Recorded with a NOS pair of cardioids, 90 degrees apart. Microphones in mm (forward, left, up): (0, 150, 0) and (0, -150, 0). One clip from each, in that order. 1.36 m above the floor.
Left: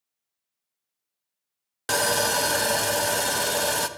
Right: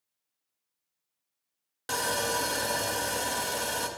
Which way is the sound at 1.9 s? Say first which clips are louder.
Left 6 dB; 35° left.